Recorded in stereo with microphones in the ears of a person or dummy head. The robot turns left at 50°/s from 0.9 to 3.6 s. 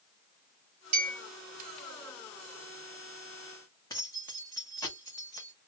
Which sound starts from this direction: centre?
Keys jangling, at 3.9 s.